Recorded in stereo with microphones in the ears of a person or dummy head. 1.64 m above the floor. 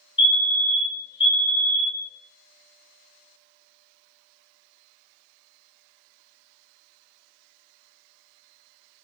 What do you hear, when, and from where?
0.2 s a fire alarm: 30° left (ahead or behind), 2.5 m